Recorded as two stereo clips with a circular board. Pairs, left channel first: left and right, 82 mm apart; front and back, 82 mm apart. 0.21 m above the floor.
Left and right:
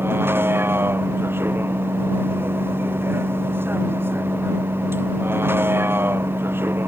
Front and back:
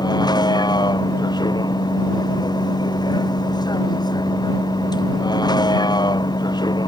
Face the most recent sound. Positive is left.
turn(degrees=-30)